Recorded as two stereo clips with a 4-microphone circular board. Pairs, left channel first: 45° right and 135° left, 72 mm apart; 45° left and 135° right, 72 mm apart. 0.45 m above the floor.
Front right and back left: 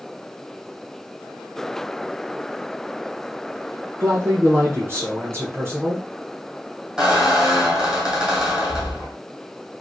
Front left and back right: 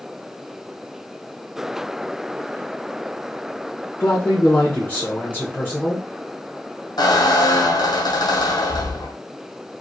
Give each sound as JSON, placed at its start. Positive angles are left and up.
{"t": 4.0, "sound": "a man speaking", "azimuth_deg": 100, "distance_m": 1.0}
{"t": 7.0, "sound": "a squeak", "azimuth_deg": 55, "distance_m": 1.6}